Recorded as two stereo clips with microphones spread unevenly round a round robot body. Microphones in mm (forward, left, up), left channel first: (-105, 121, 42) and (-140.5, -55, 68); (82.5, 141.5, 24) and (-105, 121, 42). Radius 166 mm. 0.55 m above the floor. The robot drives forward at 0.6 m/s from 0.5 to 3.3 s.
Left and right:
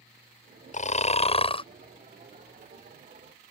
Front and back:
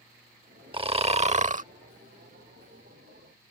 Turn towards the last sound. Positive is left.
turn(degrees=155)